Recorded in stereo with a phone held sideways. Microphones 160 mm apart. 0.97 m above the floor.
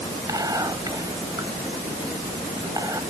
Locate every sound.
0.3 s whispering: 20° right (ahead or behind)